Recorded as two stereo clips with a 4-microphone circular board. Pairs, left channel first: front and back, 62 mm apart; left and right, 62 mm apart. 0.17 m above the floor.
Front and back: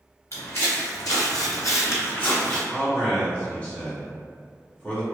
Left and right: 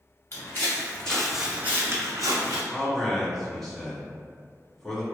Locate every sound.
0.3 s footsteps: 40° left, 1.0 m; by 2.6 s 75° right, 0.9 m
2.7 s a man speaking: 15° left, 1.1 m